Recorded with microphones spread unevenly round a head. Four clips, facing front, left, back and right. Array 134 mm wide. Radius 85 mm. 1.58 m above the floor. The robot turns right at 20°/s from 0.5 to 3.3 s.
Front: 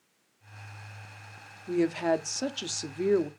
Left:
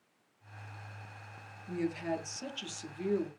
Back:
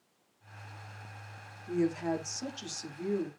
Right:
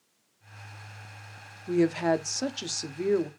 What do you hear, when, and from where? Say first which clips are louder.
1.7 s a woman speaking: right 11 dB, front 4 dB; 65° right, 0.7 m; by 3.3 s 35° right, 0.7 m